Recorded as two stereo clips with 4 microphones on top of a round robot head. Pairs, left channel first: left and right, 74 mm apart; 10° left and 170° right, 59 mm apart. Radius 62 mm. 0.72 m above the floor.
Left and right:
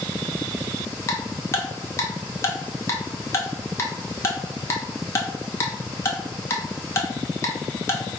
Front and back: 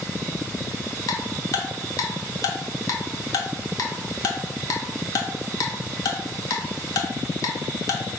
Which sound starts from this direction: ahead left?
Ticking, at 1.1 s.